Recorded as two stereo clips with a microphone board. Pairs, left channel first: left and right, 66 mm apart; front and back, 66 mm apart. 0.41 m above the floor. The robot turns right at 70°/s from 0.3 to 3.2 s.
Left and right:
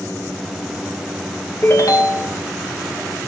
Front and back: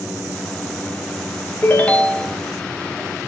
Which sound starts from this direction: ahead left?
A ringtone, at 1.6 s.